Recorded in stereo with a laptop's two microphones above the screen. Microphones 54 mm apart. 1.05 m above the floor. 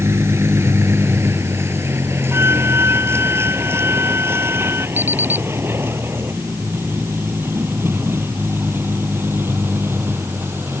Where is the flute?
45° right (ahead or behind).